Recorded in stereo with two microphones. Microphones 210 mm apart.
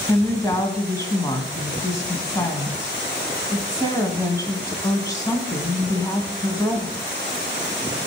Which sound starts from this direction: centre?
A woman speaking, at 0.1 s.